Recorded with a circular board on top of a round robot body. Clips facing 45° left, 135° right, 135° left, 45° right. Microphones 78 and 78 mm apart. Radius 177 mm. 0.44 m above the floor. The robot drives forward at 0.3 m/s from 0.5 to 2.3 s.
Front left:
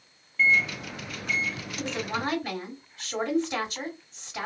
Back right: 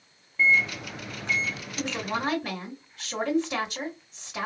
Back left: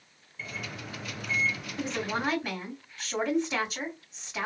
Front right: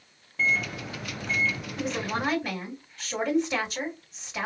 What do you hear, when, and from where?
0.4 s a microwave: 65° right, 1.1 m; by 1.6 s 80° right, 1.1 m
1.8 s a woman speaking: 135° right, 3 m